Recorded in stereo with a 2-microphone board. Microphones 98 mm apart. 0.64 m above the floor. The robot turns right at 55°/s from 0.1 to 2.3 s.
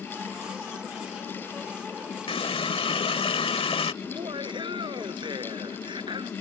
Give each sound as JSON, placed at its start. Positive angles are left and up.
{"t": 2.3, "sound": "a running tap", "side_deg": 75}
{"t": 4.0, "sound": "laughter", "side_deg": -55}